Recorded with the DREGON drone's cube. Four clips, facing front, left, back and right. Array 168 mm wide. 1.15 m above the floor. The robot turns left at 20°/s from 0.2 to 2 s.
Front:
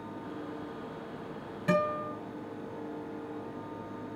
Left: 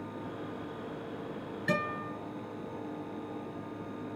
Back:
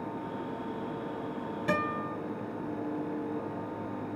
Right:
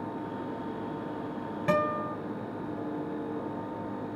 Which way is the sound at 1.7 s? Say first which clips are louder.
Right 6 dB, front 3 dB; 90° right.